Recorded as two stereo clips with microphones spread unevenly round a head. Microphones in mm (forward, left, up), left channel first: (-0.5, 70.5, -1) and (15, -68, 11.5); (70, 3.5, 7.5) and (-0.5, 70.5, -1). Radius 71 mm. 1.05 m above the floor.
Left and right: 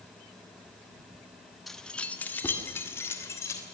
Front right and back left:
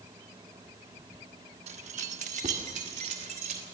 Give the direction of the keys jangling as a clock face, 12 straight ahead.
6 o'clock.